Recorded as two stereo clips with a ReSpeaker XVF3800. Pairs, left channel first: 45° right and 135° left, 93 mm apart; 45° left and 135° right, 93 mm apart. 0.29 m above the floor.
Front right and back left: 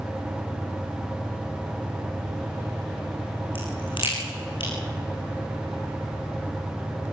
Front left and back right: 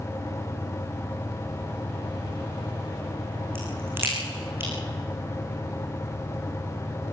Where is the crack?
70° right, 8 m.